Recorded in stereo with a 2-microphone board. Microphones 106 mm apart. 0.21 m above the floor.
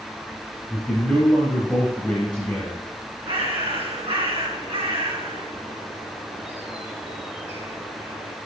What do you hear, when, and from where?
0.7 s a man speaking: 10° left (ahead or behind), 3 m
3.2 s a bird: 60° right (ahead or behind), 2.5 m